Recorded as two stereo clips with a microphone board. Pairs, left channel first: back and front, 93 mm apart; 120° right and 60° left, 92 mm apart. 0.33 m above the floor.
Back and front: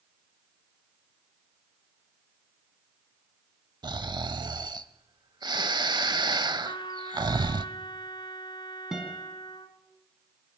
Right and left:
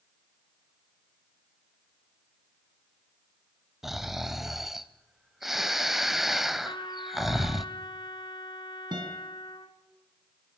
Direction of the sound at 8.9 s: 85° left.